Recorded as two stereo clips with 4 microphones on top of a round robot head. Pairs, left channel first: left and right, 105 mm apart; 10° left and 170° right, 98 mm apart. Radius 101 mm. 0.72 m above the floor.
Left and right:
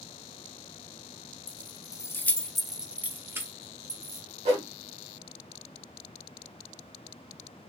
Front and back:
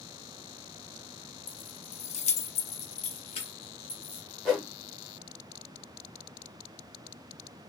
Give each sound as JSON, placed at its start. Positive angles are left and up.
{"t": 1.5, "sound": "keys jangling", "azimuth_deg": 50, "distance_m": 0.8}
{"t": 4.5, "sound": "a whoosh", "azimuth_deg": -75, "distance_m": 2.0}